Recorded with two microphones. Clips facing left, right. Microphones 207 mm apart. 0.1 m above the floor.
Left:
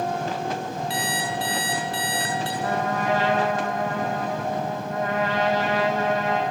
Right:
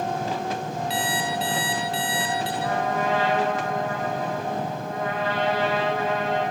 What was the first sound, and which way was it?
An alarm clock, 50° left (ahead or behind).